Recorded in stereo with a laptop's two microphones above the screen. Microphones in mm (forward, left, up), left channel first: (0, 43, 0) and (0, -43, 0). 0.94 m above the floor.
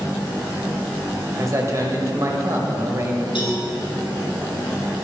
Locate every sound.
1.4 s a man speaking: 35° right (ahead or behind), 0.8 m
3.4 s a cowbell: 80° left, 2.0 m